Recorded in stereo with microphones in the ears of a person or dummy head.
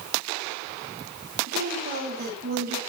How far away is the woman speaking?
About 7.5 m.